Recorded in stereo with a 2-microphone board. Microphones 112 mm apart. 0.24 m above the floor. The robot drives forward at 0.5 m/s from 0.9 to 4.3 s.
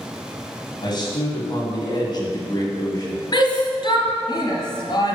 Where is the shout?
45° left (ahead or behind), 1.6 m.